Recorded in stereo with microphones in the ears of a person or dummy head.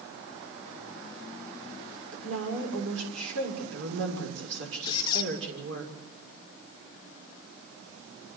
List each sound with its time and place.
2.1 s a woman speaking: 85° right, 6.5 m
4.8 s a squeak: 25° left (ahead or behind), 1.9 m